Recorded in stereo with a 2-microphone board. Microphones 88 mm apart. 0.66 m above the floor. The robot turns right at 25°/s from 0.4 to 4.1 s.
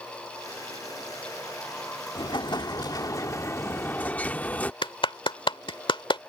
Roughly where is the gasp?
No gasp in this recording.